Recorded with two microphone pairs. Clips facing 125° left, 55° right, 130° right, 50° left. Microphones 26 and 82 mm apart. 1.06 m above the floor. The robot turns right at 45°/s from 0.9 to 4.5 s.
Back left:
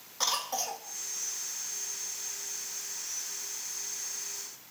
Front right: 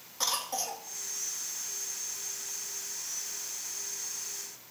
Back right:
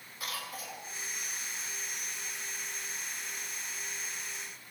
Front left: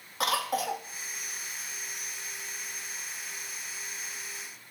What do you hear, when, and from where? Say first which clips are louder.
0.2 s a cough: back left 1 dB, front left 13 dB; 45° left, 1.5 m